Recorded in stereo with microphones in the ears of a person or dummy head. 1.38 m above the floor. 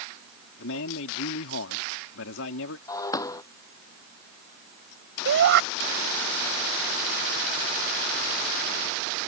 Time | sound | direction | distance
0.6 | a man speaking | 70° left (ahead or behind) | ?
2.9 | breaking glass | 20° left (ahead or behind) | ?
5.2 | a shout | 60° right (ahead or behind) | ?